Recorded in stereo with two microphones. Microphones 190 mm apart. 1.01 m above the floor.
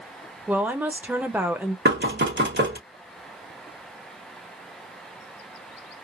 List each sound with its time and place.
0.5 s a woman speaking: 10° right (ahead or behind), 0.7 m
1.9 s knocking: 65° right (ahead or behind), 1.2 m